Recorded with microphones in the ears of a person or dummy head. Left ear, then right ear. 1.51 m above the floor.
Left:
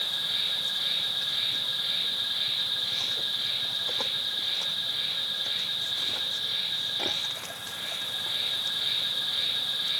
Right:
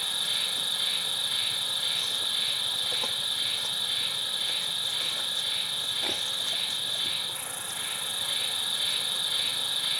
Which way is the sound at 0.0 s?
45° right (ahead or behind).